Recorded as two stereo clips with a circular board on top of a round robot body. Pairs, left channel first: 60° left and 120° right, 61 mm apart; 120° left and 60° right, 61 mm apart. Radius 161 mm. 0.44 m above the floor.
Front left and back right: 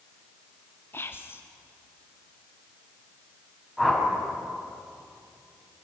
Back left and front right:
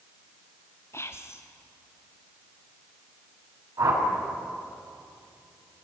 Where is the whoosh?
35° right, 5 m.